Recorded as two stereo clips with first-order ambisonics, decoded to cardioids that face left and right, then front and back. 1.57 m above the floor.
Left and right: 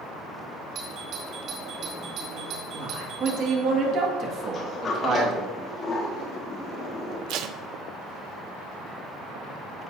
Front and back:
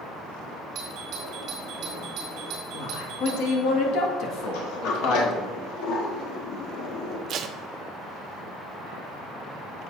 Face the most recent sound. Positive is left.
turn(degrees=-125)